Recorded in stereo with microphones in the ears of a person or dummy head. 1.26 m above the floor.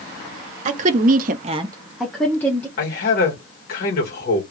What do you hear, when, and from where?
0.7 s a woman speaking: 40° right (ahead or behind), 1.0 m; by 2.7 s 10° left (ahead or behind), 1.4 m
2.8 s a man speaking: 50° left (ahead or behind), 1.8 m